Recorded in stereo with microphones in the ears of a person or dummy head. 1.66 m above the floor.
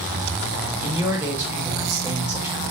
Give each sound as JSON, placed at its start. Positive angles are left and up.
{"t": 0.8, "sound": "a man speaking", "side_deg": -10, "distance_m": 1.3}